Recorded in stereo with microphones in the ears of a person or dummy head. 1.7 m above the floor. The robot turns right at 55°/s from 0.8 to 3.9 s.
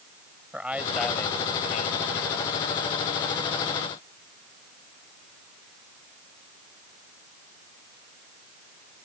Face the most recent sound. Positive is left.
turn(degrees=170)